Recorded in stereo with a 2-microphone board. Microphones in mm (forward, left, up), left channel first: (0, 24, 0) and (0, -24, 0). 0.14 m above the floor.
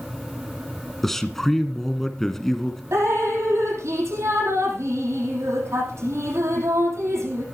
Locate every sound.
1.0 s a man speaking: 5° left (ahead or behind), 1.5 m
2.9 s dripping: 75° right (ahead or behind), 5 m